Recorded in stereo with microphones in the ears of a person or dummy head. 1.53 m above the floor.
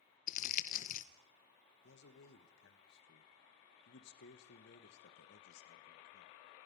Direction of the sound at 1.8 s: 75° left (ahead or behind).